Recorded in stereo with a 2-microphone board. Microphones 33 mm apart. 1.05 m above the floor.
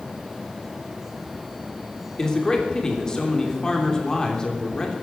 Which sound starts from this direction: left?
A man speaking, at 2.2 s.